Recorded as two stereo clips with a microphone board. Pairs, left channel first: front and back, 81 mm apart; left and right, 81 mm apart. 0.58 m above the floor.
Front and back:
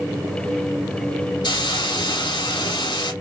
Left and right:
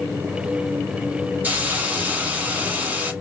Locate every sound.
1.4 s a hiss: 20° right, 1.1 m